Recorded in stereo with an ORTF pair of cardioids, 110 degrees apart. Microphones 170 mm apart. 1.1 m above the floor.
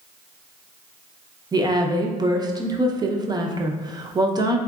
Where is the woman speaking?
25° right, 0.6 m.